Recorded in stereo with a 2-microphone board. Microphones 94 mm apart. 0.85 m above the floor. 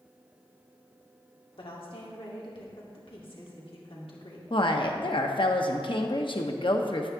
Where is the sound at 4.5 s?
60° left (ahead or behind), 0.9 m.